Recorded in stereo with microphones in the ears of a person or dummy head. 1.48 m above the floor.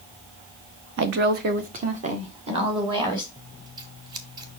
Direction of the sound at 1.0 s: 65° right (ahead or behind).